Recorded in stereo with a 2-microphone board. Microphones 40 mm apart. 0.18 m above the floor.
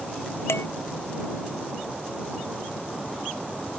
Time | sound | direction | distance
0.5 | dishes clattering | 75° left (ahead or behind) | ?